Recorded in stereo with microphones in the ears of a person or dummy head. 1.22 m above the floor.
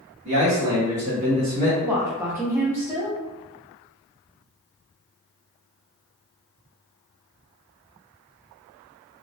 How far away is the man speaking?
About 1.3 m.